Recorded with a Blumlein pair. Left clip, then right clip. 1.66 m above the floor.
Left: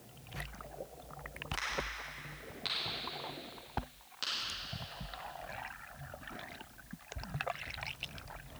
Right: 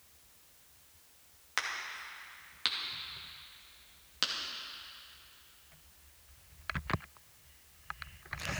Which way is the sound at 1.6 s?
25° right.